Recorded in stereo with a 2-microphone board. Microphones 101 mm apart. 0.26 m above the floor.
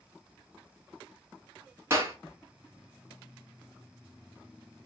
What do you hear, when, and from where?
1.9 s a clap: 25° right (ahead or behind), 1.8 m